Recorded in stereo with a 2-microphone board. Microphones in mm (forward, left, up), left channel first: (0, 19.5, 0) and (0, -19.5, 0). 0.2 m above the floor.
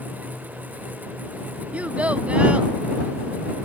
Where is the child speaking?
40° right (ahead or behind).